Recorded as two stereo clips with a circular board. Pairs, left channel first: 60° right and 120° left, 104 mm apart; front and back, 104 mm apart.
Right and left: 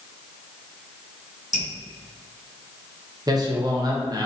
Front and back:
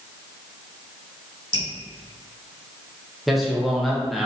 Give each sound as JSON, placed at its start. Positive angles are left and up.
{"t": 1.5, "sound": "dripping", "azimuth_deg": 30, "distance_m": 1.8}
{"t": 3.3, "sound": "a man speaking", "azimuth_deg": 90, "distance_m": 0.7}